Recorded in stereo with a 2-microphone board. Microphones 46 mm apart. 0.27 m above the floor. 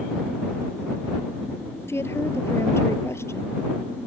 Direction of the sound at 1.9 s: 75° left (ahead or behind).